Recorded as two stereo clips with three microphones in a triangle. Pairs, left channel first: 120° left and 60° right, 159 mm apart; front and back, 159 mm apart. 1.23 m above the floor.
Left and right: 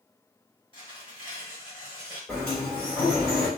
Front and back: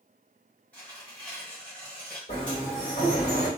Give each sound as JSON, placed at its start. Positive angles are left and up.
{"t": 0.7, "sound": "tearing paper", "azimuth_deg": 75, "distance_m": 1.3}
{"t": 2.3, "sound": "a sliding door", "azimuth_deg": 35, "distance_m": 1.6}